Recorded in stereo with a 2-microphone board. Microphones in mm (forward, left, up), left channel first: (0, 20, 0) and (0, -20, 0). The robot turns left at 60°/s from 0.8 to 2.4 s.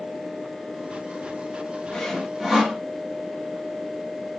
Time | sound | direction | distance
1.9 | sawing | 10° left (ahead or behind) | 1.3 m